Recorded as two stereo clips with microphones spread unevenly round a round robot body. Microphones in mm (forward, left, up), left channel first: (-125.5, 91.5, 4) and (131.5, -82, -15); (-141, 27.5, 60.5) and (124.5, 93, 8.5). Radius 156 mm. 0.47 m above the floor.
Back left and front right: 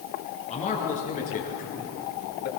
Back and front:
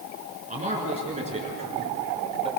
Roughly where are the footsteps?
I don't hear footsteps.